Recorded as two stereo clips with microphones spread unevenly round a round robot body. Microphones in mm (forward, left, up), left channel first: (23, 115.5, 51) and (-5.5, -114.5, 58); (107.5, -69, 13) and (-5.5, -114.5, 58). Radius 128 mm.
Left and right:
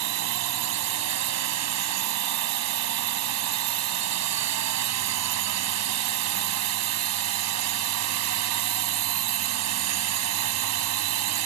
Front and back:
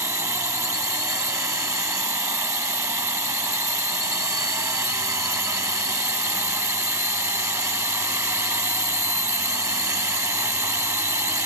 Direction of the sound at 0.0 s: 85° right.